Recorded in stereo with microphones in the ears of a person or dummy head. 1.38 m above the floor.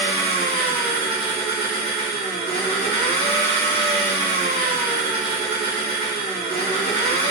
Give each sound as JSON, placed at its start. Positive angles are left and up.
{"t": 0.0, "sound": "an engine running", "side_deg": -30, "distance_m": 2.5}